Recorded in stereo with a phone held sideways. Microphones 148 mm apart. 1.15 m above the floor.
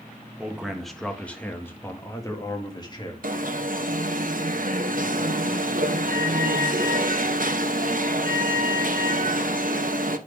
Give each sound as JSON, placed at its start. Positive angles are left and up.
{"t": 0.4, "sound": "a man speaking", "side_deg": -5, "distance_m": 1.5}
{"t": 3.2, "sound": "an alarm", "side_deg": -65, "distance_m": 0.9}